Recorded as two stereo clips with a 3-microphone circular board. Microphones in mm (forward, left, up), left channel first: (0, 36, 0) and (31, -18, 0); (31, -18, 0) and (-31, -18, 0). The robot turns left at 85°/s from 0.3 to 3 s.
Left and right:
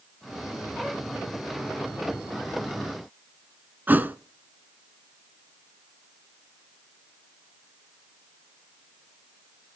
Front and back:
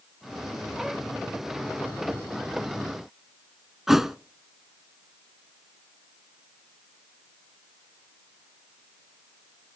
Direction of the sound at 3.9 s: 100° right.